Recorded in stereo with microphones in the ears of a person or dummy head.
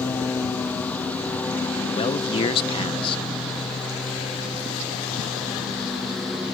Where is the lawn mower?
10° left (ahead or behind); by 6.6 s centre (ahead or behind).